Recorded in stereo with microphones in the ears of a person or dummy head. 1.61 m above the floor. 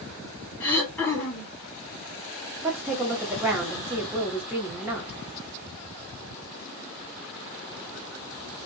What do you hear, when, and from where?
0.6 s throat clearing: 10° left (ahead or behind), 0.8 m
2.6 s a woman speaking: 10° right (ahead or behind), 0.8 m